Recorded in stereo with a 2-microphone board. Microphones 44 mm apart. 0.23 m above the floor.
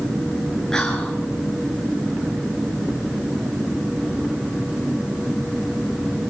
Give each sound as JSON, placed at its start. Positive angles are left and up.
{"t": 0.7, "sound": "whispering", "side_deg": 15, "distance_m": 4.0}